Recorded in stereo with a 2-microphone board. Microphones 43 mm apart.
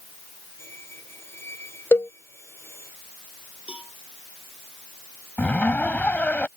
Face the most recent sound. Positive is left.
turn(degrees=40)  # may be behind; listen again after turning